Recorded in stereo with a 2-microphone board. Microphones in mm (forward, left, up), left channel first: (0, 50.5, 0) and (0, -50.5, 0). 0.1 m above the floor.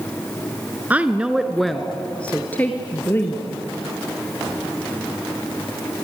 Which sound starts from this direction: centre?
A woman speaking, at 0.9 s.